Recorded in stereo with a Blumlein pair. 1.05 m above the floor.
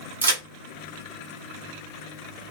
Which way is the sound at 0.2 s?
70° right.